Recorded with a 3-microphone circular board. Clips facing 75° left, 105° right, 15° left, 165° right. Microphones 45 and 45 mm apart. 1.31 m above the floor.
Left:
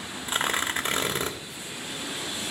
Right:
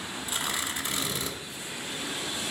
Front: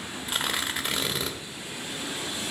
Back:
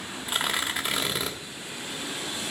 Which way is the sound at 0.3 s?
110° left.